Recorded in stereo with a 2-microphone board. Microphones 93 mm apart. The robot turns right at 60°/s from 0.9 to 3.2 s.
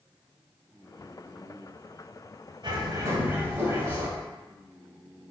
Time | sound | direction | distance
2.6 | a bird | 55° right | 1.2 m